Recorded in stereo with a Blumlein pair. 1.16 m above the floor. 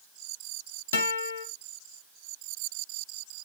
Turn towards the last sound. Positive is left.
turn(degrees=65)